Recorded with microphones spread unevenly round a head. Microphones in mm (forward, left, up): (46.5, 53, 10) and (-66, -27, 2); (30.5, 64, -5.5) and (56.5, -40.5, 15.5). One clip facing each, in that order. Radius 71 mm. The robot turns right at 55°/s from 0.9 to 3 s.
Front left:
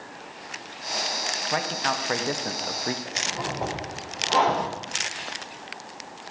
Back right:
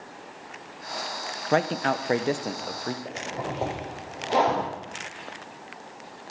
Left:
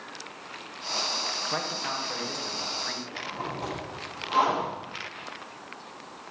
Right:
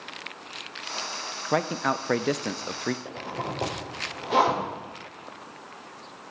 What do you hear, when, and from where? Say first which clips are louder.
1.5 s a man speaking: back right 5 dB, right 10 dB; 125° right, 0.8 m; by 3.0 s 45° right, 0.8 m
3.0 s a zipper: even, right 2 dB; 80° right, 5 m